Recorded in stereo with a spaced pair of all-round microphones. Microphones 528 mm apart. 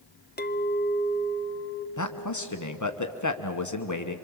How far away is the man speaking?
About 1.1 m.